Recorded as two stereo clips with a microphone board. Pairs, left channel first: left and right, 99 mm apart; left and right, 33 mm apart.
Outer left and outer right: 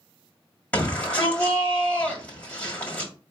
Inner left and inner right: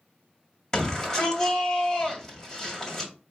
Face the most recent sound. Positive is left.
turn(degrees=15)  # may be behind; listen again after turning